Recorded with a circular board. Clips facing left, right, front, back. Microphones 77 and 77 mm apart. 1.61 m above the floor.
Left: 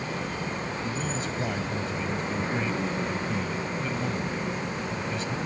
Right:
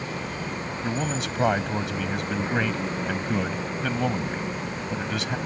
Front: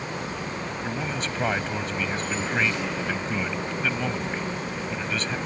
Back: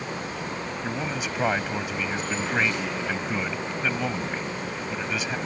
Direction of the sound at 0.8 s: 100° right.